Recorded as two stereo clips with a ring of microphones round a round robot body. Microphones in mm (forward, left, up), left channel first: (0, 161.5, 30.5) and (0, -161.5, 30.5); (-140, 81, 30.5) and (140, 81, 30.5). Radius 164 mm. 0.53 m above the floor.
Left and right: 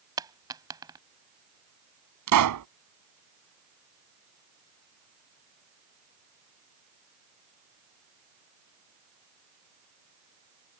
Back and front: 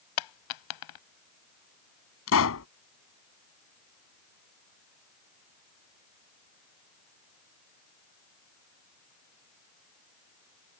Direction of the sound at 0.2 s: 170° right.